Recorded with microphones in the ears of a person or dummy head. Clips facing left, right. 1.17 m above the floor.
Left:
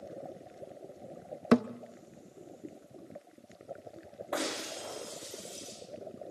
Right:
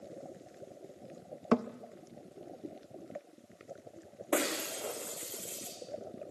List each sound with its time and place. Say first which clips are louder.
1.5 s a thud: left 4 dB; 15° left (ahead or behind), 0.5 m
4.3 s breaking glass: right 3 dB; 40° right (ahead or behind), 5 m